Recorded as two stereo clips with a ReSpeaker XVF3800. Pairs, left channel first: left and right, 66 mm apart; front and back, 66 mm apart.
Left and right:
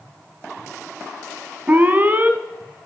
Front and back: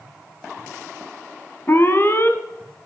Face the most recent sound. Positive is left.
turn(degrees=-40)